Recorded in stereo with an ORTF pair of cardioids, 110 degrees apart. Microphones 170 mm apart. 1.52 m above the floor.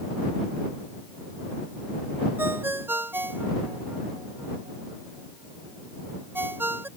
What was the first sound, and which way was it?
A ringtone, 15° right.